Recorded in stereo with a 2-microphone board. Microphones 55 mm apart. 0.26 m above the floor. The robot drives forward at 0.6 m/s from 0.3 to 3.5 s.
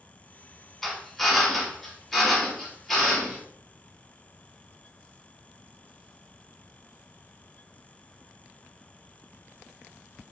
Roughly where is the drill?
Centre.